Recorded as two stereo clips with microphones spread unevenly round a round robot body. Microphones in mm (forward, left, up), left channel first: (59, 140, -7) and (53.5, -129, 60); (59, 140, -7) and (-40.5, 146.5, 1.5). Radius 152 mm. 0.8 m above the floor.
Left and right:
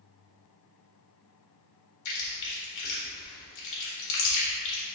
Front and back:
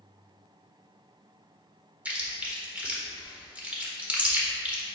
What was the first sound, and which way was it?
Chewing, 100° left.